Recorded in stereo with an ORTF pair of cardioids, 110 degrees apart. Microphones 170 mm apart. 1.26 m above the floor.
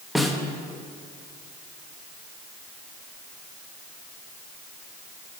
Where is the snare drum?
Straight ahead, 1.1 m.